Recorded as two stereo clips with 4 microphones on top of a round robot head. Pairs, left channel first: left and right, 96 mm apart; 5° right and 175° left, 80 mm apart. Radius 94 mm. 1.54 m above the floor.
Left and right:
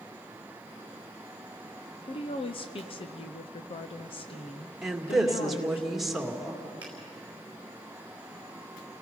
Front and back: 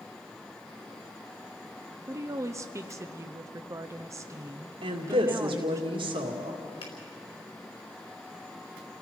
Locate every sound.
2.1 s a woman speaking: 120° left, 0.6 m
4.8 s a woman speaking: straight behind, 2 m
6.8 s a finger snap: 15° right, 4.5 m